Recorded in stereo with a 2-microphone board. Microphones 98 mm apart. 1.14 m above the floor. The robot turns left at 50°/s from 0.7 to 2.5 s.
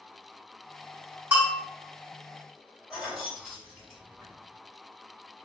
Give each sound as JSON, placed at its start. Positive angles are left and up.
{"t": 1.3, "sound": "a bell", "side_deg": -20, "distance_m": 1.0}
{"t": 2.9, "sound": "keys jangling", "side_deg": -5, "distance_m": 1.7}